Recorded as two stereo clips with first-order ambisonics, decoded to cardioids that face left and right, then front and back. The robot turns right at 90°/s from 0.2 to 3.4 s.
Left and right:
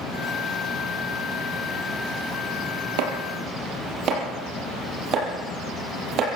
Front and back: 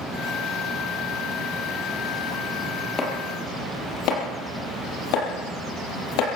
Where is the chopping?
75° right, 5 m; by 6.2 s 35° right, 5 m.